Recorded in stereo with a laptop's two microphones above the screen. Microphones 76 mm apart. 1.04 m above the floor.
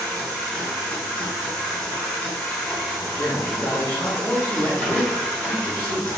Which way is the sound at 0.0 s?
15° left (ahead or behind).